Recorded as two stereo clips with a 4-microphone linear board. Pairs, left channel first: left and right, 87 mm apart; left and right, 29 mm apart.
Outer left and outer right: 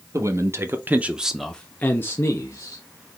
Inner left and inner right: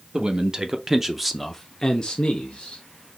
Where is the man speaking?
40° right (ahead or behind), 1.0 m; by 2.8 s 40° left (ahead or behind), 1.1 m.